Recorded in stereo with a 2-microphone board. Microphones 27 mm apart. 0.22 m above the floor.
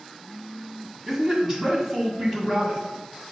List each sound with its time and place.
1.1 s a man speaking: 20° right (ahead or behind), 1.2 m